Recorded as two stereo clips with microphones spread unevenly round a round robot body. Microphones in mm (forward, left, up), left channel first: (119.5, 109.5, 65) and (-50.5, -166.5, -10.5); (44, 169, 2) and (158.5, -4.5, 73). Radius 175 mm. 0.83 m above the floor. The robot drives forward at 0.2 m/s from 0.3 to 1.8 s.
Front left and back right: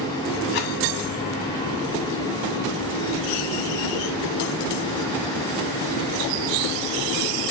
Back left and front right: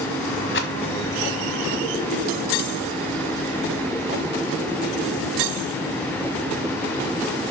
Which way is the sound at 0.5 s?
120° left.